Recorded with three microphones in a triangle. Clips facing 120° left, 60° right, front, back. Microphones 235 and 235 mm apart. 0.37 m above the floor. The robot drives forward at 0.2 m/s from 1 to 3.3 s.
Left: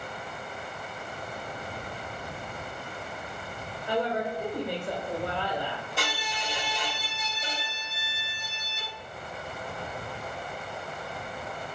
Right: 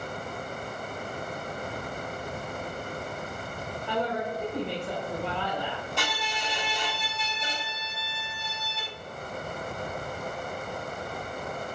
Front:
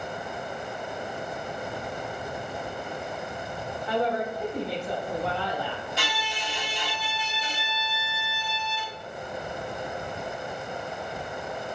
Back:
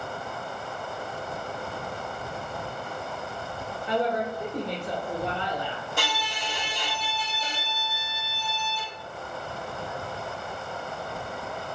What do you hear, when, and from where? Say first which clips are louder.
3.9 s a woman speaking: left 2 dB, even; 175° right, 0.9 m
6.0 s a violin: right 1 dB, back 1 dB; 155° right, 1.4 m